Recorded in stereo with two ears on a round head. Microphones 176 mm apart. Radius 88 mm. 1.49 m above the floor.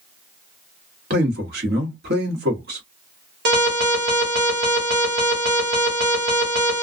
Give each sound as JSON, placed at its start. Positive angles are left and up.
{"t": 1.1, "sound": "a man speaking", "side_deg": -50, "distance_m": 1.2}
{"t": 3.5, "sound": "an alarm", "side_deg": -55, "distance_m": 1.4}